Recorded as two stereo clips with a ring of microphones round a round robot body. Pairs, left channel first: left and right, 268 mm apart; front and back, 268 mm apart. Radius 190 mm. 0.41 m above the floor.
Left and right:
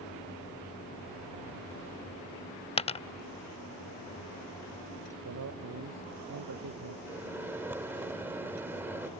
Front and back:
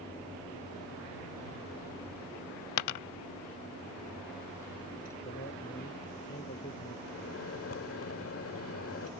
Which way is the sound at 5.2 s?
70° right.